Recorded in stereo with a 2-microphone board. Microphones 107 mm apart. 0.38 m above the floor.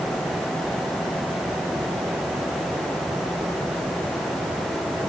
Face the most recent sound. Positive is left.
No sound to turn to.